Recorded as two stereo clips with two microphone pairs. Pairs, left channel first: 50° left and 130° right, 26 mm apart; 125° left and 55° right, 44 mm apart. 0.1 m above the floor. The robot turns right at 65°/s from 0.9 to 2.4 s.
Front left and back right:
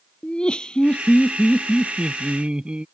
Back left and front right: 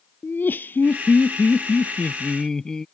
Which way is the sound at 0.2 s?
100° left.